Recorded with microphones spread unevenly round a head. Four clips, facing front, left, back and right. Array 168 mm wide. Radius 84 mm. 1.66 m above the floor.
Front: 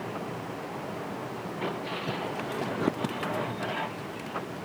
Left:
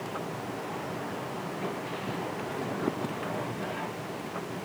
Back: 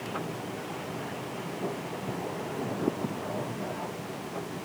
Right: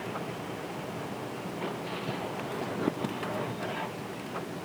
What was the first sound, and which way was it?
Only background noise.